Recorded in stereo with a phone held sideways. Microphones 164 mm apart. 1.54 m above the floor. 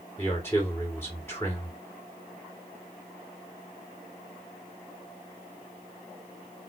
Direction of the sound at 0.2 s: 15° left (ahead or behind).